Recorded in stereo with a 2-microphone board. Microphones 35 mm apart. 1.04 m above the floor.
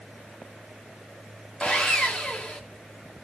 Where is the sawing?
30° left (ahead or behind), 1.5 m.